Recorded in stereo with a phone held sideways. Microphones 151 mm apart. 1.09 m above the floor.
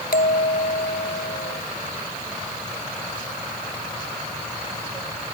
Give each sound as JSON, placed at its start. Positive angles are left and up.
{"t": 0.1, "sound": "a bell", "side_deg": 80}